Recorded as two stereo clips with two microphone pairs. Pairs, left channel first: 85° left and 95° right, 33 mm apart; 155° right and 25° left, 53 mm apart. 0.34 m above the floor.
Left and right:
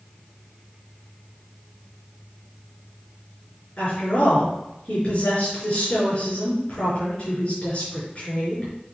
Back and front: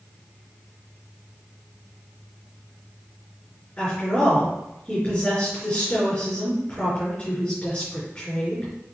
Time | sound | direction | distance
3.8 | a woman speaking | 140° left | 5 m